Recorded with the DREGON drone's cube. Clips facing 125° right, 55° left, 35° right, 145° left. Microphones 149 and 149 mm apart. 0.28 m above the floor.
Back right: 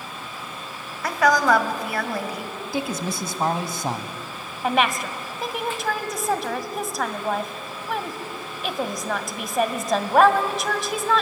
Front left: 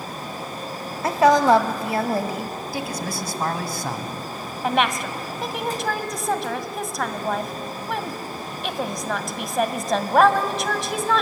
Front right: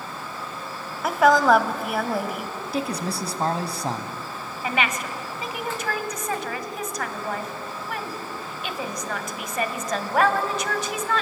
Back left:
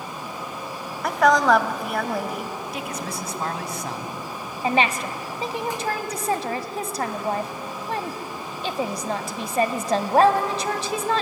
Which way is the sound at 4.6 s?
145° left.